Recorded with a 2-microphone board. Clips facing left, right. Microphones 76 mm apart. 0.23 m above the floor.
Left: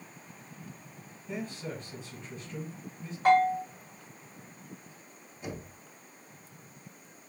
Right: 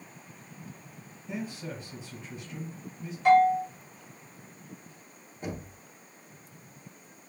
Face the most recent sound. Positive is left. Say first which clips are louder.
# right 3 dB
turn(degrees=-45)  # may be behind; listen again after turning